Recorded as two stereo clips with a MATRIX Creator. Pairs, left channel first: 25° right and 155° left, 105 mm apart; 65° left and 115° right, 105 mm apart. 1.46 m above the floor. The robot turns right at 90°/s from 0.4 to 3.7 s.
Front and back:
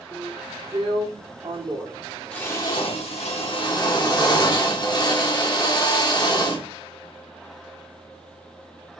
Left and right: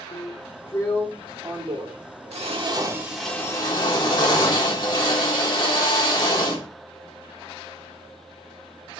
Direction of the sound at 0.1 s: 90° left.